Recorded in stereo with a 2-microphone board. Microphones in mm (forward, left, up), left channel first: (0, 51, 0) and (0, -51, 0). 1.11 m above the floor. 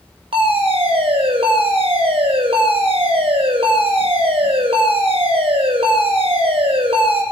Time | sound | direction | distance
0.3 | a fire alarm | 70° right (ahead or behind) | 7 m